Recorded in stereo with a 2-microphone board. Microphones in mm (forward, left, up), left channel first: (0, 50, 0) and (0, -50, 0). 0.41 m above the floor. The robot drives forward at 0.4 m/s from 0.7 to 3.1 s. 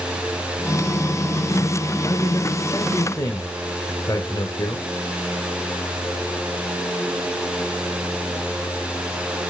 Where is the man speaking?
40° left (ahead or behind), 1.2 m; by 4.8 s 35° left (ahead or behind), 1.4 m.